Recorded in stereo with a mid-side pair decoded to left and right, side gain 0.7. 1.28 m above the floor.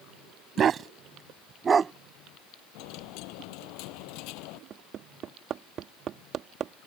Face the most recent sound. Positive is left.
turn(degrees=-45)